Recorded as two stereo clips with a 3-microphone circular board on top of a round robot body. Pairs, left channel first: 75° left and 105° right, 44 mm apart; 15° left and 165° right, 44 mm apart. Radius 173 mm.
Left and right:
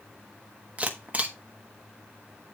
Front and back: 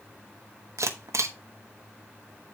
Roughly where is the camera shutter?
Behind.